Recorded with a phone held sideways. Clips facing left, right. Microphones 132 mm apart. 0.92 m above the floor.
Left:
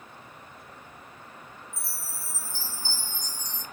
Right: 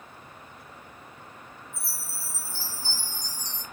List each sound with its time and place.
1.7 s a chime: 65° right (ahead or behind), 2.5 m